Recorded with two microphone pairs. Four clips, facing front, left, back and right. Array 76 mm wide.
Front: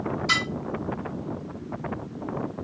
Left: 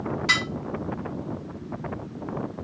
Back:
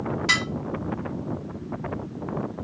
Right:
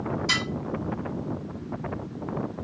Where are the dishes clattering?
140° left, 2.5 m.